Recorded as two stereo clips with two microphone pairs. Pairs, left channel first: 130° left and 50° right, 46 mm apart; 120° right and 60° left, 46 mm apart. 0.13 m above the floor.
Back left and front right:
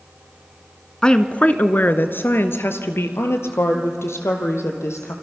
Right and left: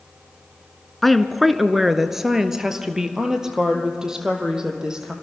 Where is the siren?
No siren in this recording.